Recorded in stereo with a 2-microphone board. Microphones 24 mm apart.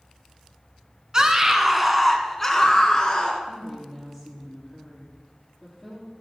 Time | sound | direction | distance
1.1 | a scream | 25° right (ahead or behind) | 1.5 m
3.4 | a woman speaking | 15° left (ahead or behind) | 4 m